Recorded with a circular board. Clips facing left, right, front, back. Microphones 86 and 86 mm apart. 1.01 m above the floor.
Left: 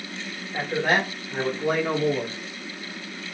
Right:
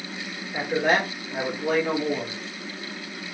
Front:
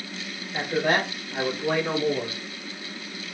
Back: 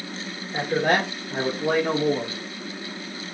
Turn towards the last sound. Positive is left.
turn(degrees=140)